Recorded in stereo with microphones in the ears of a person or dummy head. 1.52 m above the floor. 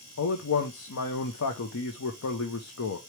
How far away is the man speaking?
About 0.7 m.